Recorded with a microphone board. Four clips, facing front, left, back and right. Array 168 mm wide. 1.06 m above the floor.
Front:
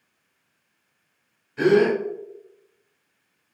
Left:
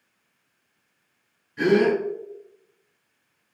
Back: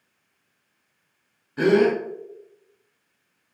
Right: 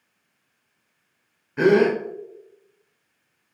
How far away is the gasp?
About 1.0 m.